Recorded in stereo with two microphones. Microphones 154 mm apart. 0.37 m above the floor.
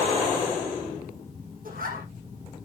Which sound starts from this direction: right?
A zipper, at 1.6 s.